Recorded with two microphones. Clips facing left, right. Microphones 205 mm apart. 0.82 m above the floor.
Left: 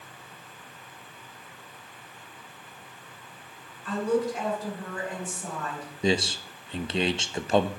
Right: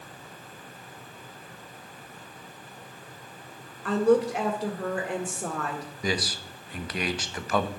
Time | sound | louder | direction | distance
3.9 | a woman speaking | right 5 dB | 75° right (ahead or behind) | 1.8 m
6.0 | a man speaking | left 5 dB | 25° left (ahead or behind) | 0.5 m